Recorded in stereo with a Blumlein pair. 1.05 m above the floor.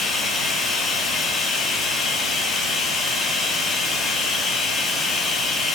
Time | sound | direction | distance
0.0 | running water | 20° left | 1.9 m